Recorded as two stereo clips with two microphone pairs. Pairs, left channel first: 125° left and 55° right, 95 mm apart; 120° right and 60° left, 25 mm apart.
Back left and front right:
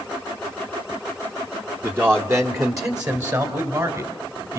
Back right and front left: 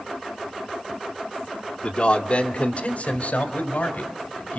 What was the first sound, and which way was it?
A man speaking, 110° right.